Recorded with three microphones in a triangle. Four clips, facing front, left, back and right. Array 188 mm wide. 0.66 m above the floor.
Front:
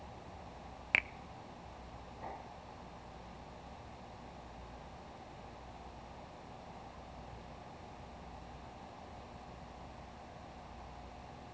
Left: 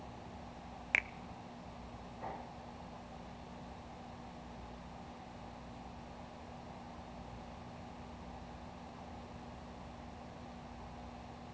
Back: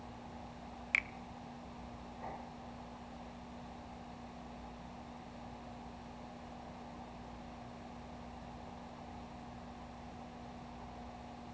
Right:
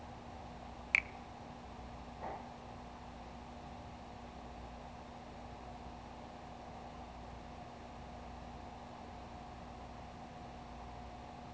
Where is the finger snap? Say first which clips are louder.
Left 1 dB, front 3 dB; 20° left, 0.6 m.